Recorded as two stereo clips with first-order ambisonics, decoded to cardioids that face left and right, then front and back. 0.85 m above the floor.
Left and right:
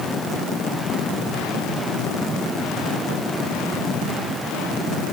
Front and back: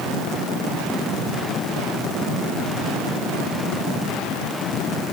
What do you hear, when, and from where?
Only background noise.